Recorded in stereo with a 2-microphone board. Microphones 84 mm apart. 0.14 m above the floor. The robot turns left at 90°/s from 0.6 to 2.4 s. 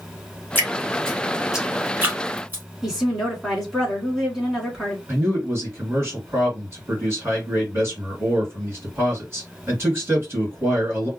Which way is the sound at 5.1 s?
35° right (ahead or behind).